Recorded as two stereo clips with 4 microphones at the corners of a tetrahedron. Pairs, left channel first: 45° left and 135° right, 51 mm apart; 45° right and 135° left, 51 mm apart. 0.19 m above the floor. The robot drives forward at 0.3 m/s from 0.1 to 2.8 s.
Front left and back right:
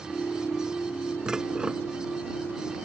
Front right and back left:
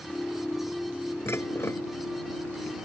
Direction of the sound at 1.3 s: 60° right.